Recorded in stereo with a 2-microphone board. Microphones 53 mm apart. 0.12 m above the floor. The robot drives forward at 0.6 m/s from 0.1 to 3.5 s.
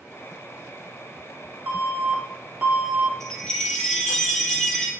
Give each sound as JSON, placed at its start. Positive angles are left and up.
{"t": 1.7, "sound": "an alarm", "side_deg": -30, "distance_m": 1.1}
{"t": 3.2, "sound": "a chime", "side_deg": 5, "distance_m": 2.0}